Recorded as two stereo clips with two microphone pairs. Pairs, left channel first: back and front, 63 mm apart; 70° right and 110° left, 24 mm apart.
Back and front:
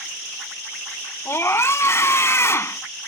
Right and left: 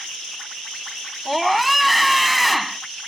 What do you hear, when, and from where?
1.2 s a scream: 160° right